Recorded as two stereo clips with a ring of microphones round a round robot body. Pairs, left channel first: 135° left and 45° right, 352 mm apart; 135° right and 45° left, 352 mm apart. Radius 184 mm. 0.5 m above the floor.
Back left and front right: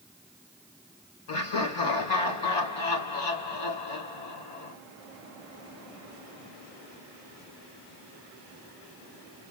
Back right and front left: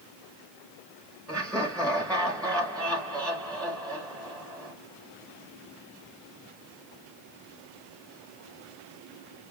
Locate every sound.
1.3 s laughter: 140° left, 2.5 m